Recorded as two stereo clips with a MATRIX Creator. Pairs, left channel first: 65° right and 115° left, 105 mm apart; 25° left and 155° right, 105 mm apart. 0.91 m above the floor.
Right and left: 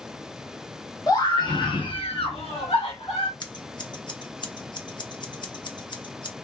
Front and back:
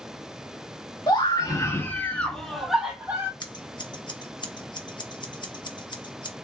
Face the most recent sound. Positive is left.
turn(degrees=-25)